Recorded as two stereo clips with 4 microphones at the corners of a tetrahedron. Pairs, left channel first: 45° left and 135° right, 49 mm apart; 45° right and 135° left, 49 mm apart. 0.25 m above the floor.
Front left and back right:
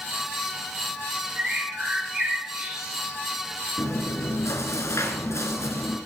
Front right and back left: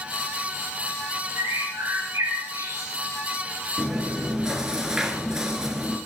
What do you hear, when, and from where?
1.4 s a bird: 150° left, 6.5 m
3.8 s chewing: 55° left, 2.5 m